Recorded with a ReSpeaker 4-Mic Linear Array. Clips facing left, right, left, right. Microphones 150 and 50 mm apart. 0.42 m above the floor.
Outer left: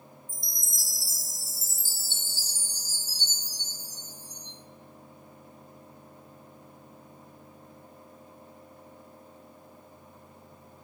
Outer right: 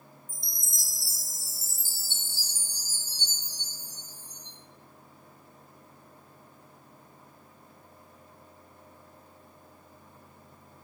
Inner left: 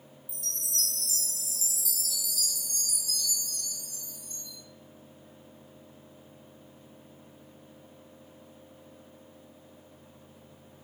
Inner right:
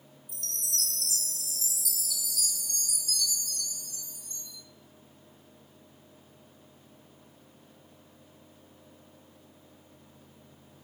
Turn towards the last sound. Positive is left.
turn(degrees=-65)  # may be behind; listen again after turning